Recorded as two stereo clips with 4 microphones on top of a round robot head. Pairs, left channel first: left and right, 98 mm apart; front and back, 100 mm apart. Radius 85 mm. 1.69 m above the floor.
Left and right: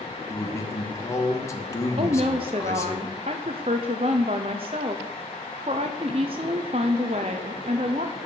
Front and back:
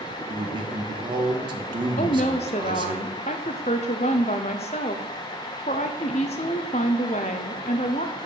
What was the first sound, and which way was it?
A man speaking, 145° left.